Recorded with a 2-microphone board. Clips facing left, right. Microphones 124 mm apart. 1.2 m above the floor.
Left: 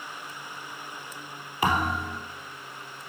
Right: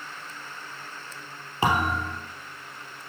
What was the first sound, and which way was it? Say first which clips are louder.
A thud: right 1 dB; 25° right (ahead or behind).